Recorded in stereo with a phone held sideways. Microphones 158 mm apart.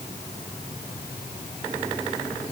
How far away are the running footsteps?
I don't hear running footsteps.